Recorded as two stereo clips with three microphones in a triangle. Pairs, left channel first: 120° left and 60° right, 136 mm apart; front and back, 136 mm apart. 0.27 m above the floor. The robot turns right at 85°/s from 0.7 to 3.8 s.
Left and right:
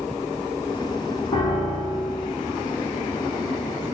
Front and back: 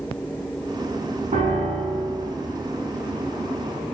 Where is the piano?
170° left, 1.3 m; by 2.3 s 110° right, 1.3 m.